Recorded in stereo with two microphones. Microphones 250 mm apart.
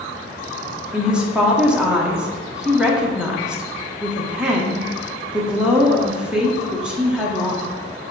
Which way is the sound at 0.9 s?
5° right (ahead or behind).